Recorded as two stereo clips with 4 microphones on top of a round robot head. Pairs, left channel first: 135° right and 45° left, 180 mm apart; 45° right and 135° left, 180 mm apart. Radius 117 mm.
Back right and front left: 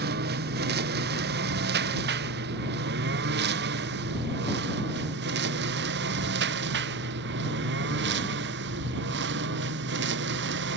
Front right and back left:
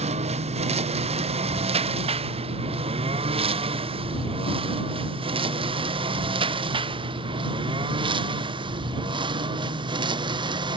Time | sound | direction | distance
0.0 | a lawn mower | 80° left | ?